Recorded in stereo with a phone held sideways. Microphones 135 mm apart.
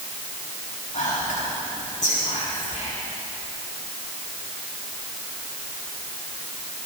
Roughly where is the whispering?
Left.